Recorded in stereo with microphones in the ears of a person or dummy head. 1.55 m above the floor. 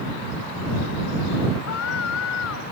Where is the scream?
85° left.